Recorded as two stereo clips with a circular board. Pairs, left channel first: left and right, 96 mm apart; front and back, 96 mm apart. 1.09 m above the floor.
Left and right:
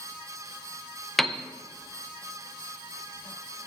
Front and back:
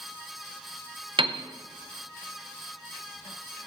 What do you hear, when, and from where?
1.2 s a piano: straight behind, 0.5 m